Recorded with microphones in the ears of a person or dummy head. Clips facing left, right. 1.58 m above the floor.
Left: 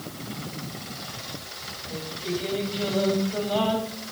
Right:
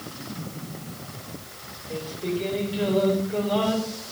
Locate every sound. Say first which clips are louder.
1.9 s singing: right 3 dB; 60° right (ahead or behind), 5 m